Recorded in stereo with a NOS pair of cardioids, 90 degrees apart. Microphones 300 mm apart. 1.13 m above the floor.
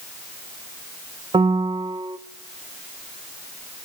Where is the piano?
15° right, 0.8 m.